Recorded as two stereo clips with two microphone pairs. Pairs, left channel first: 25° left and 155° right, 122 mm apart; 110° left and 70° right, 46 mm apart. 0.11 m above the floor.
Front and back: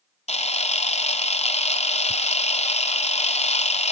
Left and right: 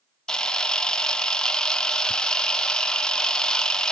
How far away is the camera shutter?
About 1.0 m.